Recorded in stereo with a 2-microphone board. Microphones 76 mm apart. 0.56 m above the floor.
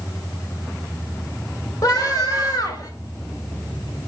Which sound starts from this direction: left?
A scream, at 1.8 s.